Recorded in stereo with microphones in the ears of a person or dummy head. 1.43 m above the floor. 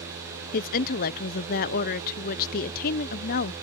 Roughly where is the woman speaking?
Left.